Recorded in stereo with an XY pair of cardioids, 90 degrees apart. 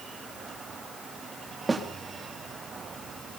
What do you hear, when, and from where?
1.7 s a snare drum: 30° right, 3.5 m